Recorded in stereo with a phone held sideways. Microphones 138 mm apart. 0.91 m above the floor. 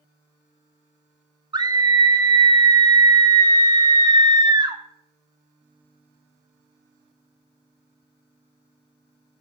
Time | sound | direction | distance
1.5 | a scream | 30° right (ahead or behind) | 1.2 m